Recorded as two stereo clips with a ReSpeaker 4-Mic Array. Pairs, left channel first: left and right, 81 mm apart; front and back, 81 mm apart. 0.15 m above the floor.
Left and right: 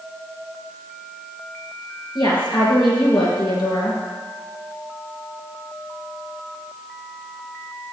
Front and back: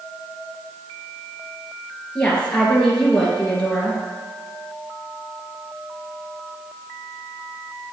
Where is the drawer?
No drawer in this recording.